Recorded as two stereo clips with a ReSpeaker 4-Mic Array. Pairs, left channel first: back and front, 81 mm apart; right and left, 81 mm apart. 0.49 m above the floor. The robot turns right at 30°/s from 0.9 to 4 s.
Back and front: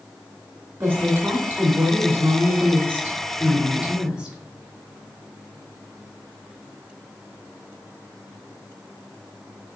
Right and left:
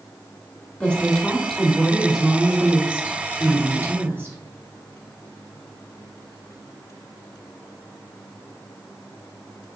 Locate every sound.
0.8 s a woman speaking: 30° right, 0.9 m; by 4.4 s 65° left, 0.9 m